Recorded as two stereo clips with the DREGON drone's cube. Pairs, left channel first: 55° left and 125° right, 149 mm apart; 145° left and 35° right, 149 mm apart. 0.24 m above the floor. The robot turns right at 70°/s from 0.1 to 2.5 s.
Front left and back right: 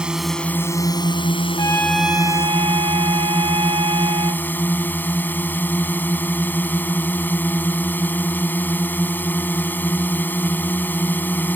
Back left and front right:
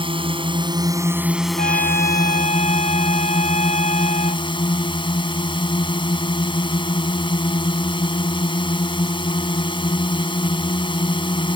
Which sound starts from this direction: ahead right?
A drone, at 0.0 s.